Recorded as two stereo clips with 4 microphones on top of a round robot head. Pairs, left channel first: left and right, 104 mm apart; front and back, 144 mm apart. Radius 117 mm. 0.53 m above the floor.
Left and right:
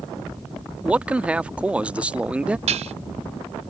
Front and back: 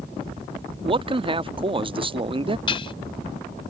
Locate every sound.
0.8 s a man speaking: 165° right
2.7 s dishes clattering: 60° right